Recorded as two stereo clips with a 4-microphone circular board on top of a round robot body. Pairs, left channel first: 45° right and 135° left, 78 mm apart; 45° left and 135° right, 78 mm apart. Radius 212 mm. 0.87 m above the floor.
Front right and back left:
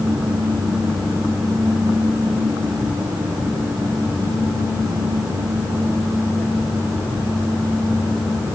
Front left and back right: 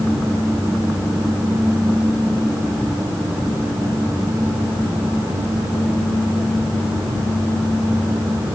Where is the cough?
I don't hear a cough.